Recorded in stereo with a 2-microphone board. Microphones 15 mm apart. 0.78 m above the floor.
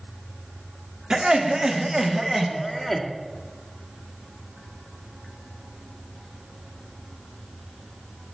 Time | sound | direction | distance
1.1 | laughter | 65° right (ahead or behind) | 1.7 m